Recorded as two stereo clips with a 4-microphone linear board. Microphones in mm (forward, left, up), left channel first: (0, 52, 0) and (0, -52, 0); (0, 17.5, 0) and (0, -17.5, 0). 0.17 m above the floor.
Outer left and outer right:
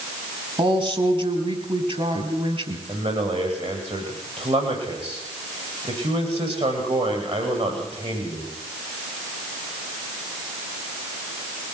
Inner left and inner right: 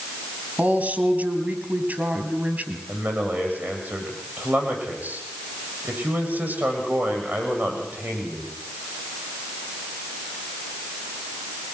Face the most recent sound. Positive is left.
turn(degrees=-70)  # may be behind; listen again after turning